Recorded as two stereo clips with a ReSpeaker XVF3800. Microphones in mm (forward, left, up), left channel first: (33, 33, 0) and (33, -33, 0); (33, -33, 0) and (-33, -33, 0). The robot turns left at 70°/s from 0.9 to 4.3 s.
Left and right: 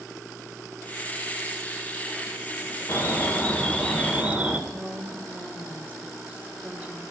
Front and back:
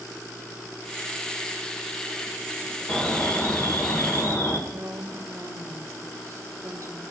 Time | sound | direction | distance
2.9 | an alarm | 75° left | 1.8 m
4.7 | a woman speaking | 150° right | 1.9 m